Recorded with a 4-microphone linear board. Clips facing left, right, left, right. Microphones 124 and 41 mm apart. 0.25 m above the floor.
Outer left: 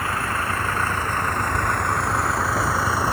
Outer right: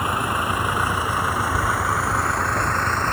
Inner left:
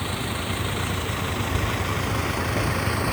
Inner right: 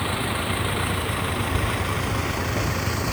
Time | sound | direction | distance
0.0 | a vehicle | 15° right (ahead or behind) | ?